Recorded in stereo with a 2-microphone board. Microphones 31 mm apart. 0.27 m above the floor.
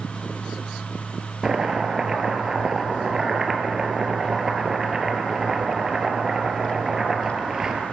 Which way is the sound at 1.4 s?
15° right (ahead or behind).